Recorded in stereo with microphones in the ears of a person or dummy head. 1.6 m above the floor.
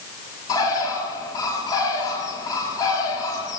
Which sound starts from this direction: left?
A bird, at 0.5 s.